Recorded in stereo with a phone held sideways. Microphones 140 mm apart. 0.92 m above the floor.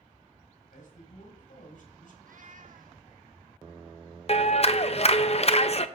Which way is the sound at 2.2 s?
70° right (ahead or behind).